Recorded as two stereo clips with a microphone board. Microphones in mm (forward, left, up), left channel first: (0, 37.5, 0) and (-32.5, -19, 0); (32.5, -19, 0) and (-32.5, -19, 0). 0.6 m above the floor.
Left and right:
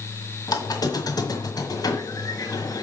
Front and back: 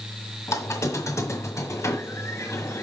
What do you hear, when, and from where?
0.5 s a squeak: 40° left, 1.5 m